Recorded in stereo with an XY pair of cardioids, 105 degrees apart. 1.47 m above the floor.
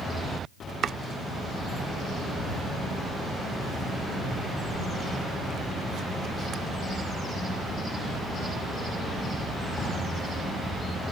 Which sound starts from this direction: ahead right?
Chopping, at 0.8 s.